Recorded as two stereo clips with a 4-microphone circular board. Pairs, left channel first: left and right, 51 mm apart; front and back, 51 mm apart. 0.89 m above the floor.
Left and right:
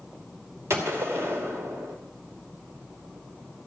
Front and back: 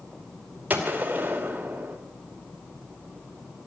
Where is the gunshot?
125° right, 2.5 m.